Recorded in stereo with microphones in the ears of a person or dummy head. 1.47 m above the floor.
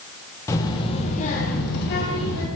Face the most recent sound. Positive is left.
turn(degrees=65)  # may be behind; listen again after turning